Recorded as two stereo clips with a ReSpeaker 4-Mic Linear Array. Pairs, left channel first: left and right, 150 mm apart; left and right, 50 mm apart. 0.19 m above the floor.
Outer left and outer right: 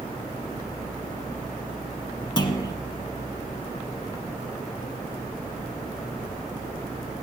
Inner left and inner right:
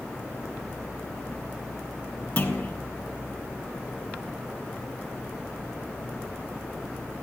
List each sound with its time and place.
2.4 s a clunk: 30° left (ahead or behind), 1.3 m